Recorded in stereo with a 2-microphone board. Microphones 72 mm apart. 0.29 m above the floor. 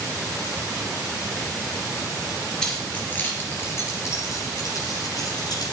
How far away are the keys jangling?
About 3 m.